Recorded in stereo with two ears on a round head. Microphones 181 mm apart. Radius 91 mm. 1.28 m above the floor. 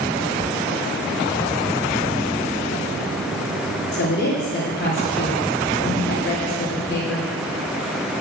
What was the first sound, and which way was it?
A woman speaking, 55° left (ahead or behind).